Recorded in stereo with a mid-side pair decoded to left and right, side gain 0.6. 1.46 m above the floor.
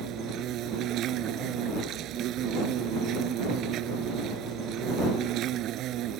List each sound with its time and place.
0.0 s an insect: 60° right